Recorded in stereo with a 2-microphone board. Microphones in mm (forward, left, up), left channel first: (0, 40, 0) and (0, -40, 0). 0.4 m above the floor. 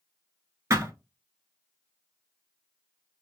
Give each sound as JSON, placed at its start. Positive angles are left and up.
{"t": 0.7, "sound": "a thud", "side_deg": -35, "distance_m": 1.1}